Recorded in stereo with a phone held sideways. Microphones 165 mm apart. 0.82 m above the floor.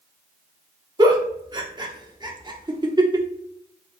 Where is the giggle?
25° right (ahead or behind), 1.0 m.